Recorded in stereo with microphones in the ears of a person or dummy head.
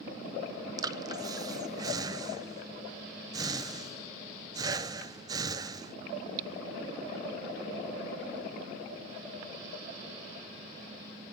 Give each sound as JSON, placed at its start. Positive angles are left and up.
{"t": 0.8, "sound": "breathing", "side_deg": -25, "distance_m": 0.6}